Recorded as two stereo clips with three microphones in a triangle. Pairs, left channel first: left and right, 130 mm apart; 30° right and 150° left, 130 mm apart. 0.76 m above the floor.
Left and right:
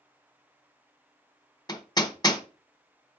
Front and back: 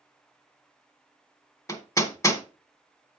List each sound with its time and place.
1.7 s hammering: 35° left, 1.3 m